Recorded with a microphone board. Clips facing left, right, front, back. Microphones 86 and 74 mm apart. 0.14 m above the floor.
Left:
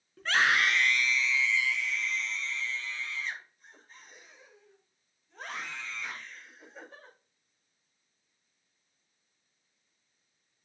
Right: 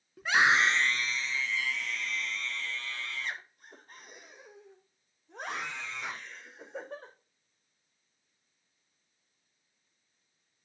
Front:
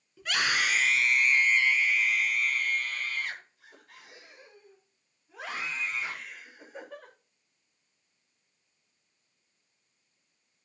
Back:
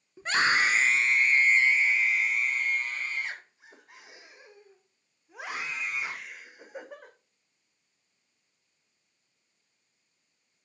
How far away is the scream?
About 1.4 m.